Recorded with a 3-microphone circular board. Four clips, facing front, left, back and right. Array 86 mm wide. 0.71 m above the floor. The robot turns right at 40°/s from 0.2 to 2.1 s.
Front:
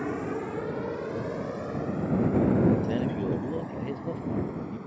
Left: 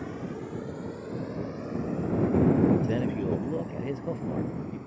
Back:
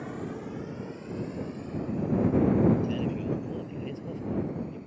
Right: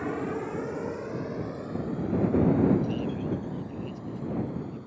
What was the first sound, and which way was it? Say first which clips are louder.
A helicopter: right 5 dB, front 6 dB; 45° right.